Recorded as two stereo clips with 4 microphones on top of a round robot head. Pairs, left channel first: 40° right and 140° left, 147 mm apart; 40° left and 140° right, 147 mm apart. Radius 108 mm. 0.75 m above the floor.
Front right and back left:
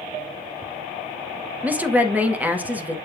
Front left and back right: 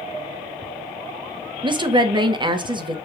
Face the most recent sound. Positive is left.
turn(degrees=-150)